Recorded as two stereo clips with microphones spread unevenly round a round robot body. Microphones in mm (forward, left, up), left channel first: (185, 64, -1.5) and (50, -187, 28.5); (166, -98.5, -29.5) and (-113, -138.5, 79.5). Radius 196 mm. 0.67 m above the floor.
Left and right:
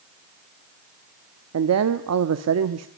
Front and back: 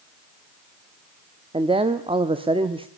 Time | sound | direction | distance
1.5 | a man speaking | 90° right | 1.1 m